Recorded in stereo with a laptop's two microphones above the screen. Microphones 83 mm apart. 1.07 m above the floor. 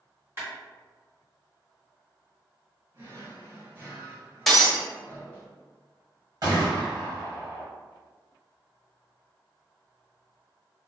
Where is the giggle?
I don't hear a giggle.